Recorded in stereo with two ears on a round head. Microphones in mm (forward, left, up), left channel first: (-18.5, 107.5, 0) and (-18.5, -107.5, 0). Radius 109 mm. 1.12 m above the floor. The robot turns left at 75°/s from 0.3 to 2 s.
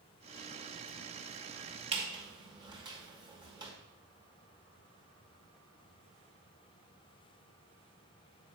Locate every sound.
1.9 s a squeak: 25° right (ahead or behind), 1.4 m; by 3.7 s 20° right (ahead or behind), 1.4 m